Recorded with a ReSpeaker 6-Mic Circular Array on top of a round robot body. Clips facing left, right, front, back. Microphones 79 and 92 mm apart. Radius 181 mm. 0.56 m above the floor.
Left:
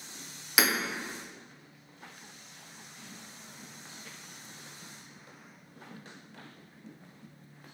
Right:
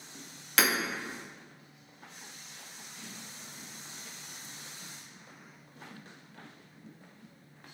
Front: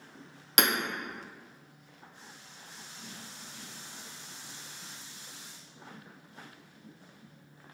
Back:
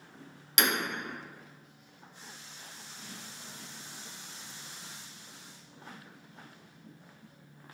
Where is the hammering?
10° left, 0.8 m.